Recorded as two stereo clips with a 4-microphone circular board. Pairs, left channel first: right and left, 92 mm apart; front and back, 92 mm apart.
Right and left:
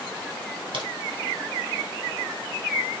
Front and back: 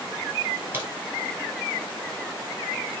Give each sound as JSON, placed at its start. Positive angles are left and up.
{"t": 0.7, "sound": "a crack", "azimuth_deg": 120, "distance_m": 2.0}